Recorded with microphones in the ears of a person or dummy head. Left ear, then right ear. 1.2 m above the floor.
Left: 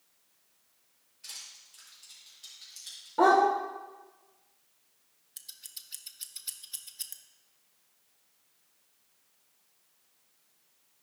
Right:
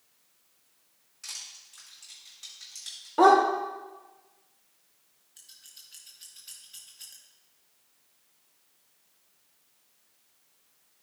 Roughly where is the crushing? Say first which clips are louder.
Right 4 dB; right.